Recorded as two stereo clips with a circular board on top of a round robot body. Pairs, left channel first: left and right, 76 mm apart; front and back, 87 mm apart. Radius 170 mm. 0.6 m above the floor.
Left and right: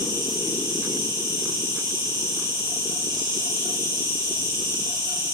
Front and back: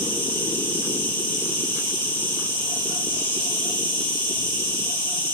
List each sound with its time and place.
0.0 s an insect: 60° right, 7 m